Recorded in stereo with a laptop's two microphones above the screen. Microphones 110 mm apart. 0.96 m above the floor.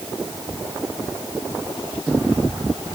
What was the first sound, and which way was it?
Only background noise.